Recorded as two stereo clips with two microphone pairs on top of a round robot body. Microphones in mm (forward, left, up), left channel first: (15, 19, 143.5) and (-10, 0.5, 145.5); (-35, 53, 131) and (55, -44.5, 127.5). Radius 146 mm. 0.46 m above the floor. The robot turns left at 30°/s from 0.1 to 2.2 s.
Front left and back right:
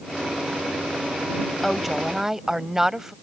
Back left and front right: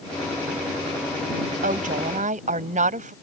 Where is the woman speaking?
50° right; by 3.1 s 65° right.